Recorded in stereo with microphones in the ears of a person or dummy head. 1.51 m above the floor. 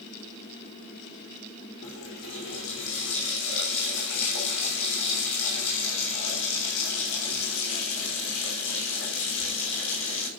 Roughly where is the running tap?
Left.